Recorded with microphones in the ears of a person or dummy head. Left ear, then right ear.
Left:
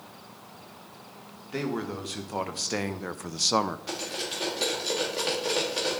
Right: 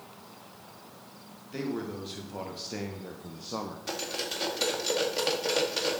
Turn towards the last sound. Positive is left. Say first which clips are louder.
# left 1 dB
turn(degrees=-15)  # may be behind; listen again after turning